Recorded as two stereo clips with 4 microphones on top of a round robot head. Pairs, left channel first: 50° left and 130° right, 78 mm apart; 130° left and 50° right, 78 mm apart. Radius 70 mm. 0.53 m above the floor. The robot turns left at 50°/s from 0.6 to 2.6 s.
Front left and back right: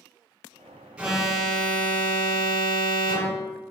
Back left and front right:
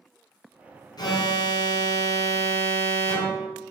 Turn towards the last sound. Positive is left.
turn(degrees=70)